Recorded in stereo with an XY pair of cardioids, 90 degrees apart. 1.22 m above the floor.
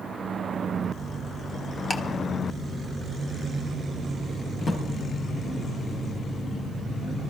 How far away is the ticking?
About 1.6 m.